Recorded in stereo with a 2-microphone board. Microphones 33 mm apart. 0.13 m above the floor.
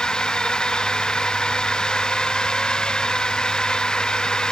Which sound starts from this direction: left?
A drone, at 0.0 s.